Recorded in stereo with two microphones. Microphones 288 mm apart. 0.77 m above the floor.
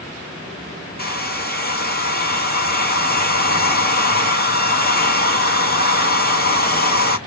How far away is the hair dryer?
About 0.7 m.